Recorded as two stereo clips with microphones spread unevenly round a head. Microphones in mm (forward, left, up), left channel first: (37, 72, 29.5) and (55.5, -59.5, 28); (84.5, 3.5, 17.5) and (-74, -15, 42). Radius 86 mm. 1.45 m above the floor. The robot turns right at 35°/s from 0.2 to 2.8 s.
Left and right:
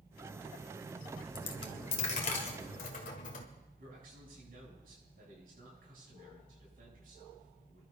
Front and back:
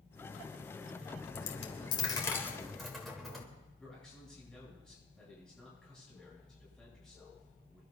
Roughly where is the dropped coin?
Ahead left.